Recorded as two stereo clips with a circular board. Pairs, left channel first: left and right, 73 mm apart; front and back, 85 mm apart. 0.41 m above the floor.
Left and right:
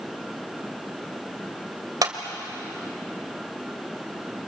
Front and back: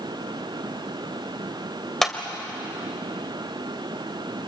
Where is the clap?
85° right, 1.7 m.